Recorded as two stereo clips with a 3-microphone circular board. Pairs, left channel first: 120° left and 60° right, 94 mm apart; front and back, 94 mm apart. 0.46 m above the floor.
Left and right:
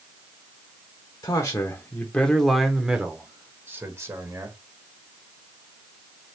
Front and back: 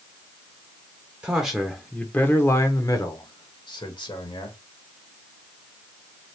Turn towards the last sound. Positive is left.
turn(degrees=-10)